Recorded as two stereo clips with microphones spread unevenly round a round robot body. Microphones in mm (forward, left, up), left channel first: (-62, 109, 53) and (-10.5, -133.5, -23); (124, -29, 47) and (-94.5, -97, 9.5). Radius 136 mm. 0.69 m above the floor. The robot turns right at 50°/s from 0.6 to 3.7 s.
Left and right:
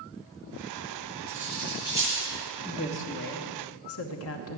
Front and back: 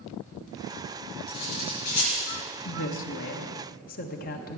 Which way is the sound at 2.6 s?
15° left.